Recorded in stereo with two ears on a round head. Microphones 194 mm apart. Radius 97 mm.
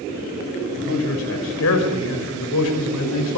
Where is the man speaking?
70° left (ahead or behind), 5.5 m; by 3.4 s 85° left, 5 m.